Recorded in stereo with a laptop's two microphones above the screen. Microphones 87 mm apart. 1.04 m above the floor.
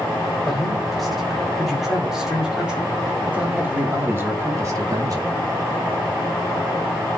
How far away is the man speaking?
About 3.5 m.